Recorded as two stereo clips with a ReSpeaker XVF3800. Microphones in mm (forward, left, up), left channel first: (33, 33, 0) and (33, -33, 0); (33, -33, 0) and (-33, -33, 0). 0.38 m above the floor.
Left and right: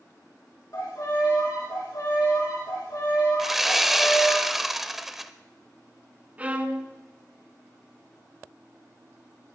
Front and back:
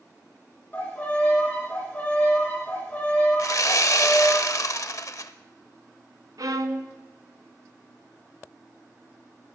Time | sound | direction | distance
0.7 | a violin | 65° left | 5.5 m
3.4 | sawing | 5° right | 0.7 m
6.4 | a violin | 155° right | 1.2 m